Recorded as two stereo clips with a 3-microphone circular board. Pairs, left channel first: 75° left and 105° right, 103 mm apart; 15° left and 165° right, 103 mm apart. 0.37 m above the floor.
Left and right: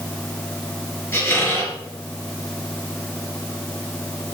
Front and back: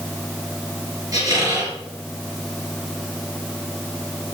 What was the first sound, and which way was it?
A squeak, 145° left.